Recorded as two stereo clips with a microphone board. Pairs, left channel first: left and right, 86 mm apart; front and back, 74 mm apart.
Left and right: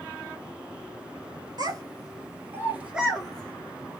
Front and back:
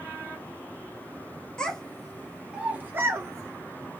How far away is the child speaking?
About 1.6 m.